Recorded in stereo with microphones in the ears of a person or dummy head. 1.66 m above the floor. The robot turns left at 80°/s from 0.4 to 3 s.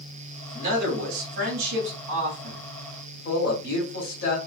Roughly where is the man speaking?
Ahead right.